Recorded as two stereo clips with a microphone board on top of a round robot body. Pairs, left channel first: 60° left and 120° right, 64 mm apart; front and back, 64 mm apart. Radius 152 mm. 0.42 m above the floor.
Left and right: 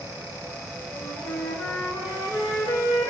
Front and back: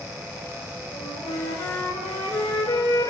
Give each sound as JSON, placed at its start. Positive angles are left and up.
{"t": 0.9, "sound": "a flute", "azimuth_deg": 15, "distance_m": 1.3}